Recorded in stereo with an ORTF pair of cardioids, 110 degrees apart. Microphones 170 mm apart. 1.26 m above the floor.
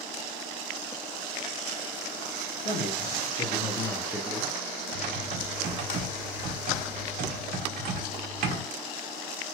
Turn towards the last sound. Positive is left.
turn(degrees=-55)